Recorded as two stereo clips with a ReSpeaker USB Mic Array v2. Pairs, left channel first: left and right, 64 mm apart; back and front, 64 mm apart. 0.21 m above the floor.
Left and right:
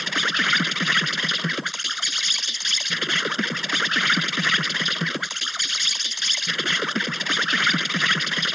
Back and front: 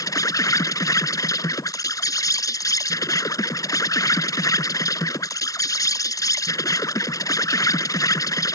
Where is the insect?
Straight behind.